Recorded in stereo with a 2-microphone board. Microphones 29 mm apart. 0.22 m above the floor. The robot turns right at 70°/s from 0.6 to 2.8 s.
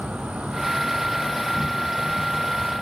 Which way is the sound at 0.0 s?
60° right.